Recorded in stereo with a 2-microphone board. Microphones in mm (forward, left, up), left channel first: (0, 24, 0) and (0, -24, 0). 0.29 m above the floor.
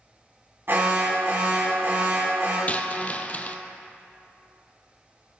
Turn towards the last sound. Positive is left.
turn(degrees=35)  # may be behind; listen again after turning